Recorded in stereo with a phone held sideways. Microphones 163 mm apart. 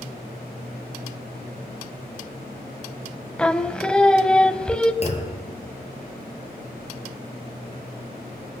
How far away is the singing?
About 1.1 m.